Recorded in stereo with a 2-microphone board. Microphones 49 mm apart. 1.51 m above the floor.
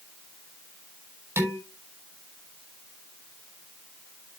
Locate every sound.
1.4 s dishes clattering: 55° right (ahead or behind), 6 m